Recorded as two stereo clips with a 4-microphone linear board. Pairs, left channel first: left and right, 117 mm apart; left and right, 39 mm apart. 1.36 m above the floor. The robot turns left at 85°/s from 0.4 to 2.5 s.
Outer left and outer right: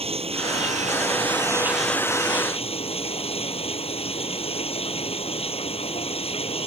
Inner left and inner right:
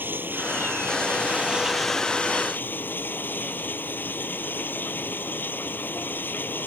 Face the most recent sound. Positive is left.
turn(degrees=125)